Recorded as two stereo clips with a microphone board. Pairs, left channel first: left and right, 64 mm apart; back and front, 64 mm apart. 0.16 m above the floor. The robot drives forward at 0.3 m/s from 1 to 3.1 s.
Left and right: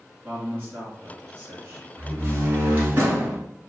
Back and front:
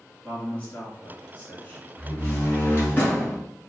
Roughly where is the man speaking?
Behind right.